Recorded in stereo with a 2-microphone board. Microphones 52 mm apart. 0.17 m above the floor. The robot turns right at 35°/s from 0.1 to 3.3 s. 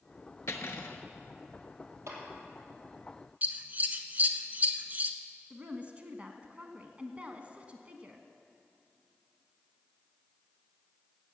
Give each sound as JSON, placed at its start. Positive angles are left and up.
{"t": 0.5, "sound": "cutlery clinking", "side_deg": 65, "distance_m": 1.3}
{"t": 2.1, "sound": "a clap", "side_deg": -70, "distance_m": 3.5}
{"t": 3.4, "sound": "scissors", "side_deg": -35, "distance_m": 1.0}
{"t": 5.5, "sound": "a woman speaking", "side_deg": -30, "distance_m": 1.2}